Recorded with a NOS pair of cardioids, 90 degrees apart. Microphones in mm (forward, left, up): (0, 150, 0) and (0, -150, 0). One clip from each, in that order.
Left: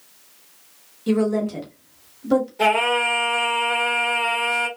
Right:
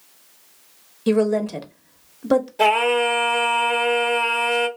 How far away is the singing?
About 1.2 m.